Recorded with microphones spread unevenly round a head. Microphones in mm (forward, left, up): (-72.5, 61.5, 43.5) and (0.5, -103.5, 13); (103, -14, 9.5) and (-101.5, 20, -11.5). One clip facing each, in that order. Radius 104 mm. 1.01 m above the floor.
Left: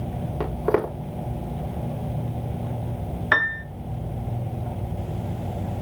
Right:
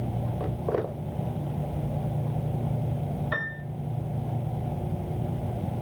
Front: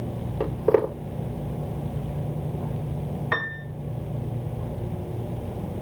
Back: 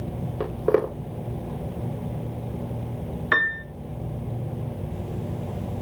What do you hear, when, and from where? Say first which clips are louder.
0.4 s footsteps: left 7 dB, front 1 dB; 95° left, 8 m
3.3 s a piano: left 5 dB, back 1 dB; 105° left, 1.3 m